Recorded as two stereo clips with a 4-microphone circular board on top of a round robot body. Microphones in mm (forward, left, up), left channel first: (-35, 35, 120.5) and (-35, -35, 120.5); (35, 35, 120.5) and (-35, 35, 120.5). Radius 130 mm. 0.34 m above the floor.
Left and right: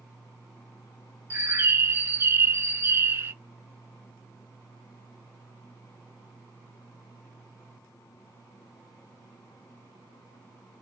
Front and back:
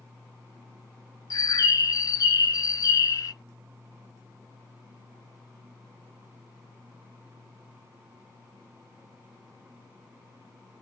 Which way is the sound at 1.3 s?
35° right.